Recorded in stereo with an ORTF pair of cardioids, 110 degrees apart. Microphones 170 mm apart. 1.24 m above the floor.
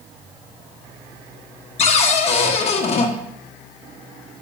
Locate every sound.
1.8 s a cupboard door: 40° left, 1.0 m